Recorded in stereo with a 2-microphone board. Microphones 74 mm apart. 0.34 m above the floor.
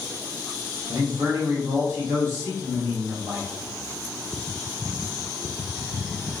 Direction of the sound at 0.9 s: 45° right (ahead or behind).